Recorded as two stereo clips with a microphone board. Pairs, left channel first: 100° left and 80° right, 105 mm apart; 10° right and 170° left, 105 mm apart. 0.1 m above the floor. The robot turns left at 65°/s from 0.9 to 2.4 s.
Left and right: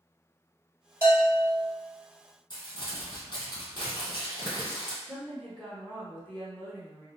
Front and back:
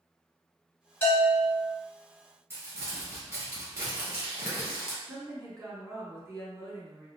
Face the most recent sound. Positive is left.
turn(degrees=160)